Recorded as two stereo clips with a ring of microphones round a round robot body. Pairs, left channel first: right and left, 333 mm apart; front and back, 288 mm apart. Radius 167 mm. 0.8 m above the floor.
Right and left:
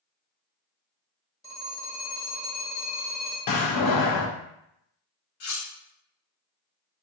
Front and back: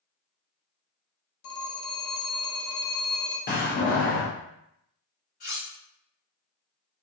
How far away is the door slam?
About 0.6 m.